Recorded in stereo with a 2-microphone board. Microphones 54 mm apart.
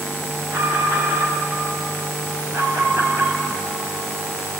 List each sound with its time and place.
0.5 s an alarm: 75° right (ahead or behind), 7 m
2.5 s an alarm: 50° right (ahead or behind), 3.5 m